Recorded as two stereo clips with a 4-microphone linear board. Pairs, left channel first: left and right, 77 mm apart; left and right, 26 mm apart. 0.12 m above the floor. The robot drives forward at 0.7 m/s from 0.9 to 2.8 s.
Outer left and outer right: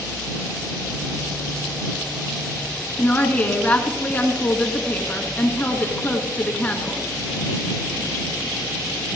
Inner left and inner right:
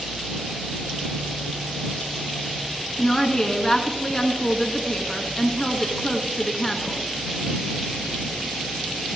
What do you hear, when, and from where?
3.0 s a woman speaking: 20° left (ahead or behind), 1.6 m